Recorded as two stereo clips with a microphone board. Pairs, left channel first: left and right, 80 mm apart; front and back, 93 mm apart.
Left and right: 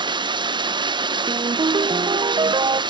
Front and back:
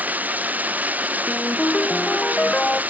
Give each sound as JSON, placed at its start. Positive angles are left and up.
{"t": 0.0, "sound": "running water", "azimuth_deg": -105}
{"t": 1.3, "sound": "a ringtone", "azimuth_deg": -75}